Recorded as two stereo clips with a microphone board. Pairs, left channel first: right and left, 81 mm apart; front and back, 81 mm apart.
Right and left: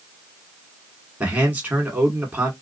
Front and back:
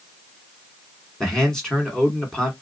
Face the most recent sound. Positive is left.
turn(degrees=70)